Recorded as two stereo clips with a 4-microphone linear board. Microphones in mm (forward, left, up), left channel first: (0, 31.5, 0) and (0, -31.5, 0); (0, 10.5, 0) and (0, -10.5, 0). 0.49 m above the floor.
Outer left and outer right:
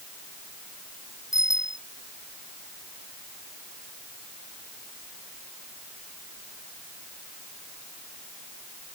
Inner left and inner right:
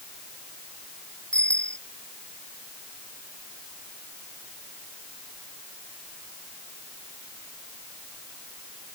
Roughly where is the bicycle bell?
Left.